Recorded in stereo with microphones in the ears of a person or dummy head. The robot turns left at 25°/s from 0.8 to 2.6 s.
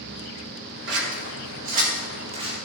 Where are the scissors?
55° right (ahead or behind), 1.6 m; by 2.5 s 15° right (ahead or behind), 1.6 m.